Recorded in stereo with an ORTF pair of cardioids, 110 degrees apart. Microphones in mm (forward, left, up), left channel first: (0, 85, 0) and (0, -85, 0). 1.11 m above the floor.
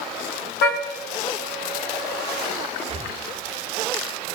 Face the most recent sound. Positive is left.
turn(degrees=-35)